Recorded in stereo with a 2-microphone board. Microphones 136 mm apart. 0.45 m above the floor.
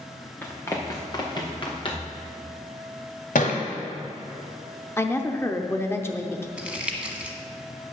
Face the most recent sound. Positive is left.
turn(degrees=-10)  # may be behind; listen again after turning